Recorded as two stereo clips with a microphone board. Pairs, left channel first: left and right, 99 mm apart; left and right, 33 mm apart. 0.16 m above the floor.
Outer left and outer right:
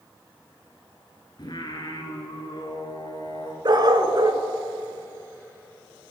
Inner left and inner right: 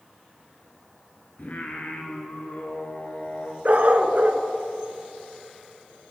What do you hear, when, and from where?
1.4 s singing: 50° left (ahead or behind), 1.8 m
3.6 s a dog barking: 50° right (ahead or behind), 0.8 m